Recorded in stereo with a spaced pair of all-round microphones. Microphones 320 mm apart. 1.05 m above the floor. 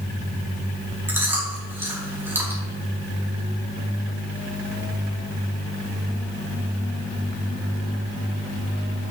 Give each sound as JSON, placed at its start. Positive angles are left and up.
{"t": 1.1, "sound": "chewing", "side_deg": -5, "distance_m": 4.0}